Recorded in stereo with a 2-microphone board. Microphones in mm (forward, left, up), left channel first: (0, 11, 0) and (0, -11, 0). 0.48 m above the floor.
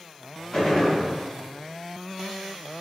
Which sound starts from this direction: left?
A gunshot, at 0.5 s.